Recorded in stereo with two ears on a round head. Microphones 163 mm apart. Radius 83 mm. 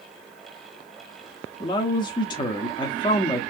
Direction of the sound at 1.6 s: 25° left (ahead or behind).